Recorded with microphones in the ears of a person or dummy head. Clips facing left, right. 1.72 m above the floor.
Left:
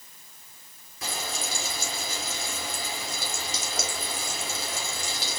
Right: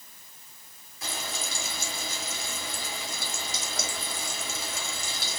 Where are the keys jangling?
I don't hear keys jangling.